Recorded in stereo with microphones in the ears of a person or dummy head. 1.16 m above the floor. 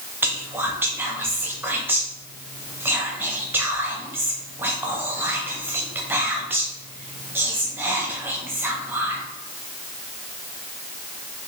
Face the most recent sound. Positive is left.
turn(degrees=-10)  # may be behind; listen again after turning